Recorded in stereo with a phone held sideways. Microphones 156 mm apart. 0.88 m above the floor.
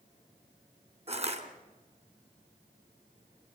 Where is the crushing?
45° right (ahead or behind), 3 m.